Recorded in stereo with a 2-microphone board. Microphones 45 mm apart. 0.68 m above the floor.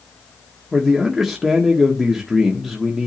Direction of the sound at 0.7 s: Centre (ahead or behind).